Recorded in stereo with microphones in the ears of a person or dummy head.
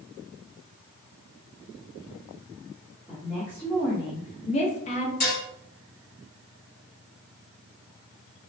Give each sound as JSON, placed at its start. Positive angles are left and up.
{"t": 3.1, "sound": "a woman speaking", "side_deg": 5, "distance_m": 0.9}
{"t": 5.2, "sound": "dishes clattering", "side_deg": 35, "distance_m": 1.2}